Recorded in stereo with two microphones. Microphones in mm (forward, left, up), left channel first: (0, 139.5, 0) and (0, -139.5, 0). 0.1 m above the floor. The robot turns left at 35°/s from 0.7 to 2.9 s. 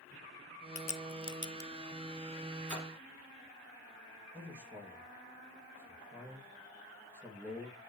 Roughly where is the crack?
Left.